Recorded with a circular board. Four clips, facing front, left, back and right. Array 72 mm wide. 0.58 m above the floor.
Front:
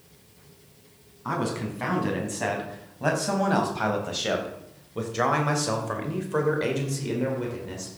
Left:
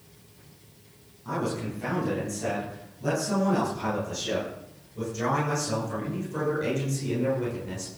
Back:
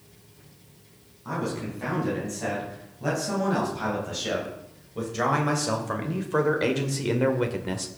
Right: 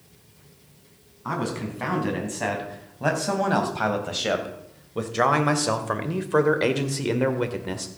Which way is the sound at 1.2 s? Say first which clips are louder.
Right 2 dB, front 2 dB; 55° right.